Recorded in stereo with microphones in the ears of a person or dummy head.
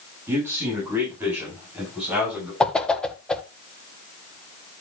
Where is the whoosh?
10° left (ahead or behind), 1.1 m.